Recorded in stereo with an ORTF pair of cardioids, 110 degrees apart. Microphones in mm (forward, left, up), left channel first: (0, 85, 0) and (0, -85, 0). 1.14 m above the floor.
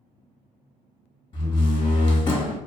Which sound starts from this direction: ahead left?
A door slam, at 1.3 s.